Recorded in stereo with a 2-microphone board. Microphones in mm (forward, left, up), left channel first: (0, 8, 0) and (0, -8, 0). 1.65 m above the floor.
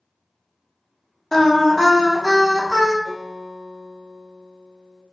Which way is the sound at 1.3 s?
25° left (ahead or behind).